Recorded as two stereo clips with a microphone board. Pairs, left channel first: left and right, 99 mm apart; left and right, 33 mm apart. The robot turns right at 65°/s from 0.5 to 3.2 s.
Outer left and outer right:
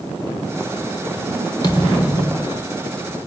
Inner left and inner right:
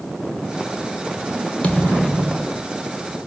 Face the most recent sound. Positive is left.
turn(degrees=140)